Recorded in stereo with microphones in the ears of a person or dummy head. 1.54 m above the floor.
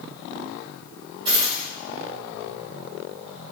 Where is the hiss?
No hiss in this recording.